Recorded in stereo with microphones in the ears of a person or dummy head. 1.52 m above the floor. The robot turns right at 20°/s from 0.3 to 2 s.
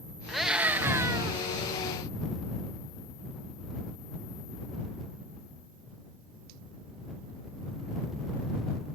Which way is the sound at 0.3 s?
5° right (ahead or behind).